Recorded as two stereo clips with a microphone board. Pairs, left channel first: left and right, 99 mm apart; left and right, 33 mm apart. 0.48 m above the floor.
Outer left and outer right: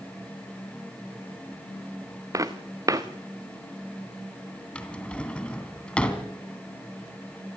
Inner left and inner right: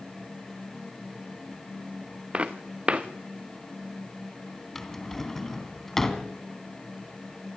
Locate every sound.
2.3 s footsteps: 35° right (ahead or behind), 1.9 m
4.8 s a drawer: 10° left (ahead or behind), 2.5 m